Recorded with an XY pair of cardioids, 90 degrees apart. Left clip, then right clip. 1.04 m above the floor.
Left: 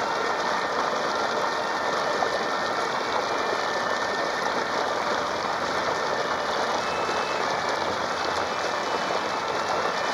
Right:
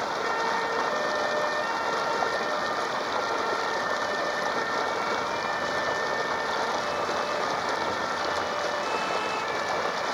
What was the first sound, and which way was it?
Running water, 25° left.